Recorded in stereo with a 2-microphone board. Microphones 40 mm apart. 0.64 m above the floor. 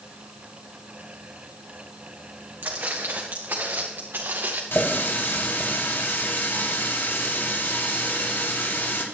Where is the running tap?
80° left, 2.5 m.